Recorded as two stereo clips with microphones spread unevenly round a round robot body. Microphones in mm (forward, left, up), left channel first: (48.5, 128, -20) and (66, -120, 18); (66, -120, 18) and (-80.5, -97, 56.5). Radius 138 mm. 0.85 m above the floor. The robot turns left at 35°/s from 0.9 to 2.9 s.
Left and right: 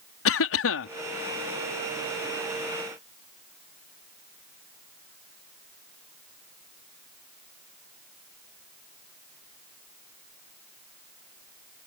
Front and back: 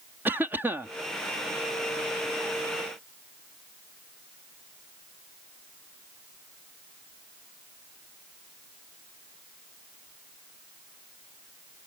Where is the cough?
85° left.